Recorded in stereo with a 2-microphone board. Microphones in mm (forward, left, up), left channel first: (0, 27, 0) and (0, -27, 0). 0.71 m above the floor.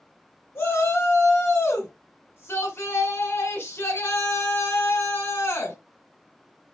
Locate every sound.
0.6 s a shout: 50° left (ahead or behind), 2.5 m